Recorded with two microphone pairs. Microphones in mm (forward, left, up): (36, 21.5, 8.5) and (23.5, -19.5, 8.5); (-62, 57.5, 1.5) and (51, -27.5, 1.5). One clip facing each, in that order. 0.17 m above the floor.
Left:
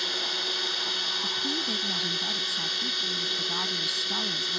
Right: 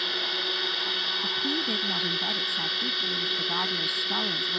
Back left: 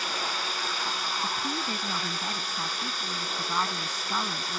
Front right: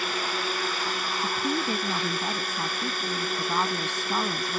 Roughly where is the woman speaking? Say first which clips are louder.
Right 2 dB, front right 6 dB; ahead right.